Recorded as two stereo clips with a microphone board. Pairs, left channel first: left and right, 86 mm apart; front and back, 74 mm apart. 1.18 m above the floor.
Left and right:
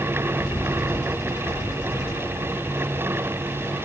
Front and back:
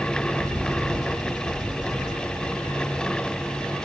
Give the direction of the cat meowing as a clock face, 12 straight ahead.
No cat meowing in this recording.